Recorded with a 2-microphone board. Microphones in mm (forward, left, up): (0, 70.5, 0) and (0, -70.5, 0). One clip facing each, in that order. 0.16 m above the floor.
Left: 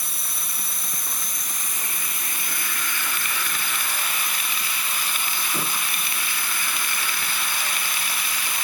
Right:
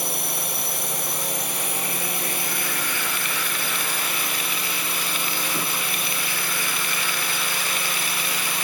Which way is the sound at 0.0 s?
70° right (ahead or behind).